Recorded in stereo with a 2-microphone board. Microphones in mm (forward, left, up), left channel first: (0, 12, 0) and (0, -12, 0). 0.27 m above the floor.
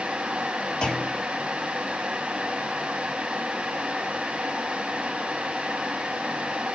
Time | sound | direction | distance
0.8 | a clunk | 45° left (ahead or behind) | 1.7 m